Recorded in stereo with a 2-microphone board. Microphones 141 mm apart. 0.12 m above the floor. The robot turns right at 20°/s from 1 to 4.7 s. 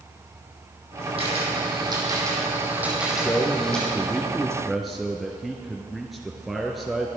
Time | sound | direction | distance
1.2 | a camera shutter | 45° right | 5.5 m
3.1 | a man speaking | 150° left | 1.5 m